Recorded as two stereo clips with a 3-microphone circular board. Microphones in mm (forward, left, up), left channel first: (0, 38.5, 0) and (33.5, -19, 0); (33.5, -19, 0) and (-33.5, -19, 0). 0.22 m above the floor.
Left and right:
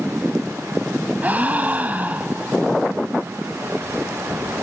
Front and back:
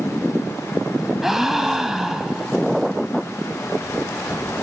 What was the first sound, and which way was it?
A gasp, 100° right.